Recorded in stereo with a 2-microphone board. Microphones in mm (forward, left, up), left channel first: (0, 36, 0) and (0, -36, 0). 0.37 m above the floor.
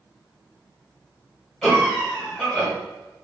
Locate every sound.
1.6 s a cough: 5° left (ahead or behind), 1.5 m